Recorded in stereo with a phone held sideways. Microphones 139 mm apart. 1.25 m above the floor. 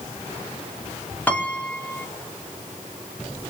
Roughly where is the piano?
Centre.